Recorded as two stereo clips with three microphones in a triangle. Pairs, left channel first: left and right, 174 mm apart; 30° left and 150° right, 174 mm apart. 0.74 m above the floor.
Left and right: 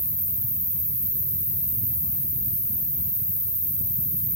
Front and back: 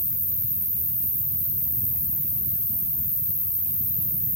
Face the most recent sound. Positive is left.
turn(degrees=65)